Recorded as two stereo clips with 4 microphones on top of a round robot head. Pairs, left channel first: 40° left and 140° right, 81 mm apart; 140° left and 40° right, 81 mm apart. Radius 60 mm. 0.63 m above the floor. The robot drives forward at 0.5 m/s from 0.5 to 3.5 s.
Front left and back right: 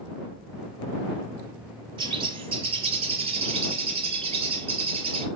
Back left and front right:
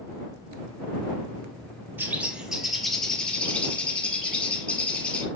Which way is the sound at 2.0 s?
105° right.